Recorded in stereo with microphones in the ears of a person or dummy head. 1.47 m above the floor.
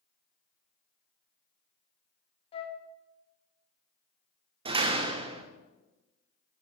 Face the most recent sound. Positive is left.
turn(degrees=-25)  # may be behind; listen again after turning